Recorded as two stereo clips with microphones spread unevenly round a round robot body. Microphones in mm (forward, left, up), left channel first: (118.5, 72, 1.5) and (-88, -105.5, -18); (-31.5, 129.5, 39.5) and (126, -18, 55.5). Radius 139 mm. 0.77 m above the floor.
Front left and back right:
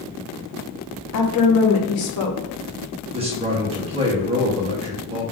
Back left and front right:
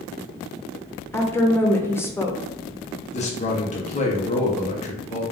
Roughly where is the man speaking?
Behind.